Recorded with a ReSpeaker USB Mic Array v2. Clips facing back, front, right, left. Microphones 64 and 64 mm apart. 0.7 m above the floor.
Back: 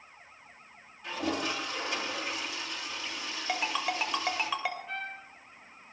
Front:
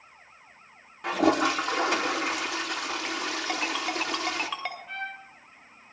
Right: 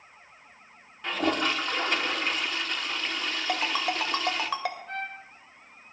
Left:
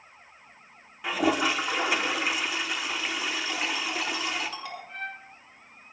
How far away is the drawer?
I don't hear a drawer.